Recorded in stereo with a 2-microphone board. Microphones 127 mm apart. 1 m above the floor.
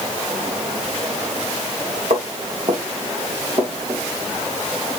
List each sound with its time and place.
2.1 s footsteps: 65° right (ahead or behind), 3 m; by 4.0 s 55° right (ahead or behind), 4.5 m